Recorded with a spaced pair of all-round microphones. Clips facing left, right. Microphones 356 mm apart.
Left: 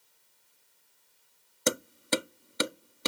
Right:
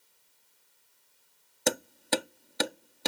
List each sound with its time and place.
1.7 s hammering: 10° left (ahead or behind)